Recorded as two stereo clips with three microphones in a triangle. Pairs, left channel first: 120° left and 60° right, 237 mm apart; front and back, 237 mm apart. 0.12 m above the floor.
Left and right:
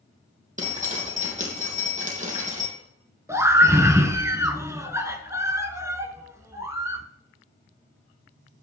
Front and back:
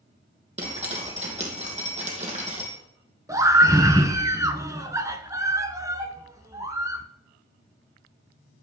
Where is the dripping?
115° right, 3 m.